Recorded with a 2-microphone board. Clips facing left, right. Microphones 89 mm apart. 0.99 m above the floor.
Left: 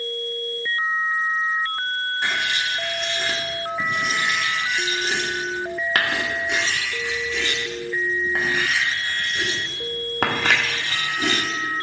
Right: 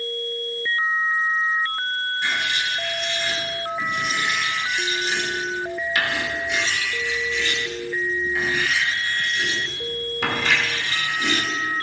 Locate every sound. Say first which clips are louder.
2.2 s writing: left 1 dB; 60° left (ahead or behind), 1.6 m